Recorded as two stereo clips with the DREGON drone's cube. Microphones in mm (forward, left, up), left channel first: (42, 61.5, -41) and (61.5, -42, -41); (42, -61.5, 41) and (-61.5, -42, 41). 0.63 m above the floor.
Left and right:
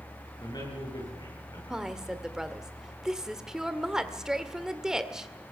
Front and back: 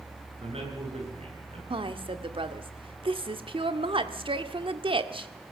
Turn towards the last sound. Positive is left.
turn(degrees=-165)